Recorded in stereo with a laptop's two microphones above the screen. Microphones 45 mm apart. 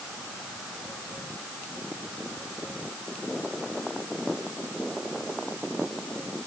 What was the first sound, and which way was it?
Only background noise.